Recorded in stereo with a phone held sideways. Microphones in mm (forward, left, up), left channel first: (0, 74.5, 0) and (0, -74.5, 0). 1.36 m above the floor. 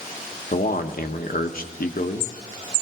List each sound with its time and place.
0.5 s a man speaking: 70° left (ahead or behind), 1.1 m